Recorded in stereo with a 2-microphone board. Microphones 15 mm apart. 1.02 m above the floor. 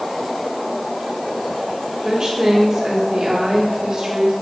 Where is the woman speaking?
45° right (ahead or behind), 2 m.